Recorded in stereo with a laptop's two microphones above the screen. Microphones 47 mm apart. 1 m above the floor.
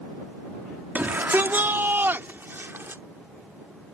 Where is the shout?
45° right (ahead or behind); by 3.0 s 55° right (ahead or behind).